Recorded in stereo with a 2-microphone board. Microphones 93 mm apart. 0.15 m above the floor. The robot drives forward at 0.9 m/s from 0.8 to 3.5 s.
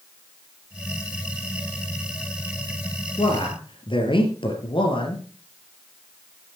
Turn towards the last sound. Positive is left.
turn(degrees=65)  # may be behind; listen again after turning